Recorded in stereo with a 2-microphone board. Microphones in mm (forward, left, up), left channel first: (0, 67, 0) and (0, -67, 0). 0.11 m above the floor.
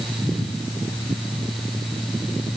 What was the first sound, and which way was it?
Only background noise.